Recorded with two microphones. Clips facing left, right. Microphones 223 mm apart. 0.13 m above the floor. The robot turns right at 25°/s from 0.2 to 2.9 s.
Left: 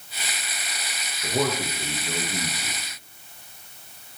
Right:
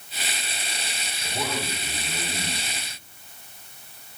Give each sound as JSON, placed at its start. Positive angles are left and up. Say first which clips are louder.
{"t": 1.2, "sound": "a man speaking", "louder": "left 6 dB", "azimuth_deg": 95, "distance_m": 7.0}